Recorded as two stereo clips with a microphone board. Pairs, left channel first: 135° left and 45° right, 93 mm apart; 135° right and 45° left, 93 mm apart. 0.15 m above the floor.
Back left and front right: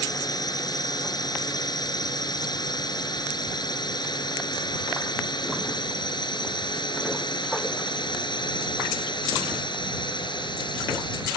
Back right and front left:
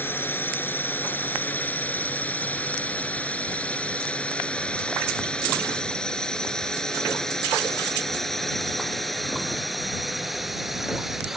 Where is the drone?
160° left; by 11.4 s 130° left.